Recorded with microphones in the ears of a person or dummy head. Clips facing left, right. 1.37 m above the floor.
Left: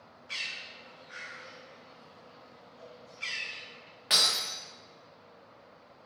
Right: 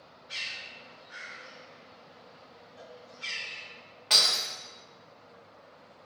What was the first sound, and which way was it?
A bird, 50° left (ahead or behind).